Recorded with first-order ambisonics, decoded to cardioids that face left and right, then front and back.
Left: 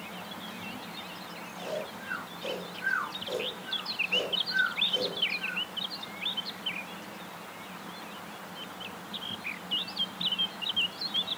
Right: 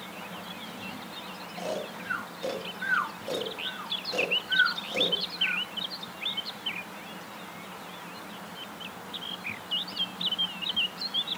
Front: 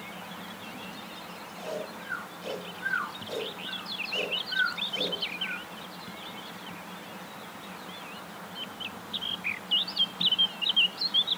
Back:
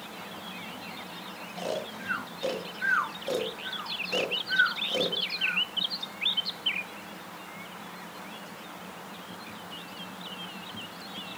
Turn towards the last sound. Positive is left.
turn(degrees=-160)